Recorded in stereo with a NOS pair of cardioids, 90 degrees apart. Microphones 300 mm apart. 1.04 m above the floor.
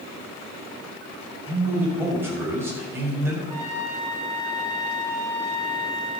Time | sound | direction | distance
1.5 | a man speaking | 10° right | 6.5 m
3.5 | a trumpet | 25° right | 4.5 m